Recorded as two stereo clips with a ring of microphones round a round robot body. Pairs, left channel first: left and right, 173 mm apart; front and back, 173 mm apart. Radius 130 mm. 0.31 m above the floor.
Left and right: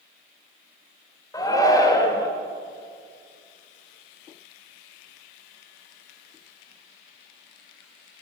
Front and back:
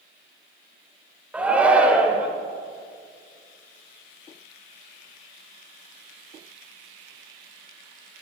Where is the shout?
110° left, 1.3 m.